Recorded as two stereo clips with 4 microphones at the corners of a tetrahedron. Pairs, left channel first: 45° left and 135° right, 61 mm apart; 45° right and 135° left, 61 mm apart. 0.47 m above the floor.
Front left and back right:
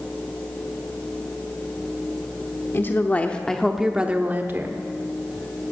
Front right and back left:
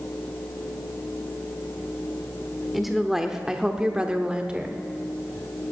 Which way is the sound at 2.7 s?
50° left.